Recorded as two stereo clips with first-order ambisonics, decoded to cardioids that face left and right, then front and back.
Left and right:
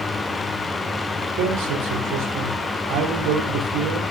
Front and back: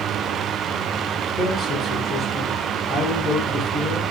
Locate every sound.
1.4 s a man speaking: 70° right, 3.5 m